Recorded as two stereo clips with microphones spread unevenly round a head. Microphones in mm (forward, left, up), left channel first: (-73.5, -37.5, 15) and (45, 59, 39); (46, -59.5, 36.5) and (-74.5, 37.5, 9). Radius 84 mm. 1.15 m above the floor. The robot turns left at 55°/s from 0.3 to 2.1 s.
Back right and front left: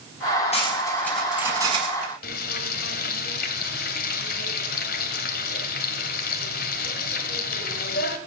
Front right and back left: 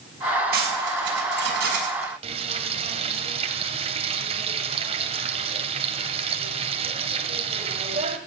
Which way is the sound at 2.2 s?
165° right.